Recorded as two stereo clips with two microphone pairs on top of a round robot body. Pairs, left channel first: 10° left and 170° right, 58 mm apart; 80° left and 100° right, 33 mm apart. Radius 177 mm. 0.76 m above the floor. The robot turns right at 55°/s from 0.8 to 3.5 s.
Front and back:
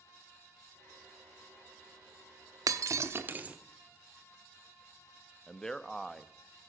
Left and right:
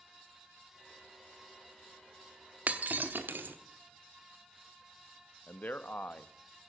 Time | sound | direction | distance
2.7 | breaking glass | 145° right | 1.0 m
5.5 | a man speaking | 90° left | 1.0 m